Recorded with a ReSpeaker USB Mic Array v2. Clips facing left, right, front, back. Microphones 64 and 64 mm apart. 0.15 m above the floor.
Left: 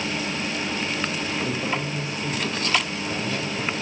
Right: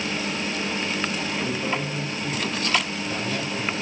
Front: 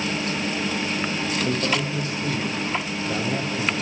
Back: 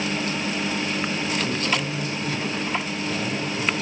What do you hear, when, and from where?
1.4 s a man speaking: 5° left, 8 m; by 3.7 s straight ahead, 8.5 m